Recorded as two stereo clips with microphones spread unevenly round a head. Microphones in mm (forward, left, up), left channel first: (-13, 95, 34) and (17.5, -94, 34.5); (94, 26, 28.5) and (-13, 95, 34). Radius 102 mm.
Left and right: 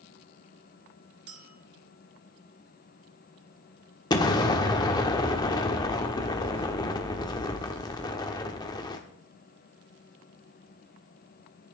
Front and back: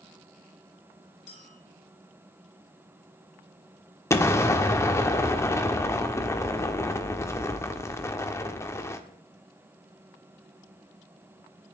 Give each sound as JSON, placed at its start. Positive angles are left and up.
{"t": 1.3, "sound": "a clink", "azimuth_deg": -90, "distance_m": 3.0}
{"t": 4.1, "sound": "an explosion", "azimuth_deg": 35, "distance_m": 1.2}